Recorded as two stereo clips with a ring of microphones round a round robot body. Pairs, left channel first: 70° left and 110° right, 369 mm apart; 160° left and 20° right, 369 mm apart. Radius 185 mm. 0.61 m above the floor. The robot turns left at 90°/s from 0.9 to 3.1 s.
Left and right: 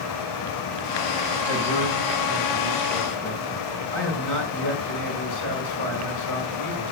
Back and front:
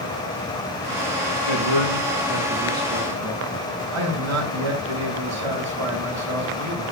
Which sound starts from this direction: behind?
A man speaking, at 1.4 s.